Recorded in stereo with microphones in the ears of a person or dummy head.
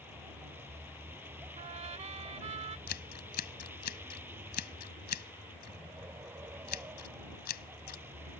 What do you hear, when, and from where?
0.0 s a vehicle: 10° right (ahead or behind)
1.6 s a trumpet: 35° right (ahead or behind)
2.9 s scissors: 50° left (ahead or behind)